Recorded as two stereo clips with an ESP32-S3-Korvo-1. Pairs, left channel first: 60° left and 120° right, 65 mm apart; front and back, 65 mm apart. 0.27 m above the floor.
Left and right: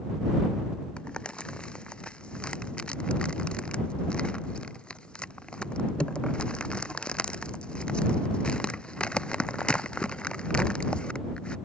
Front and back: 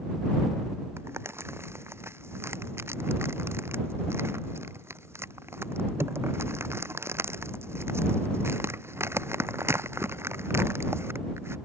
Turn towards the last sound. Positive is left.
turn(degrees=135)